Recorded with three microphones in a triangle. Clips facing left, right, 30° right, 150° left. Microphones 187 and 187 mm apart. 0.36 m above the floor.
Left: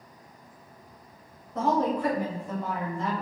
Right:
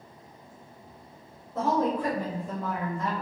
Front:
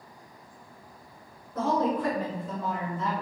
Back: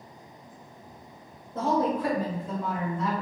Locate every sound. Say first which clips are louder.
1.6 s a woman speaking: left 1 dB, back 1 dB; 175° right, 0.9 m; by 3.2 s 105° right, 1.3 m